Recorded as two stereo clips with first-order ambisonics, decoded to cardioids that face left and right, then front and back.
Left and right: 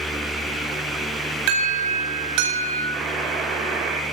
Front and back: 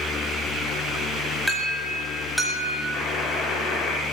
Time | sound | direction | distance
1.5 | an alarm | 85° right | 8 m
2.9 | a buzzer | 45° right | 9 m